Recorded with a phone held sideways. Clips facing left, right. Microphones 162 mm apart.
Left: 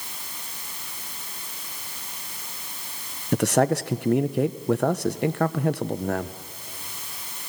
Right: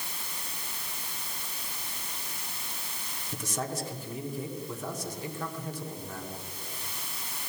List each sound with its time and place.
3.3 s a man speaking: 70° left (ahead or behind), 0.6 m